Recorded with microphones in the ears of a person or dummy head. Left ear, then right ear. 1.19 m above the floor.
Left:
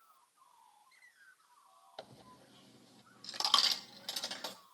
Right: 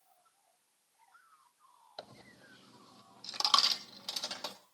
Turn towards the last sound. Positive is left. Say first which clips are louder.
# right 2 dB
turn(degrees=-10)  # may be behind; listen again after turning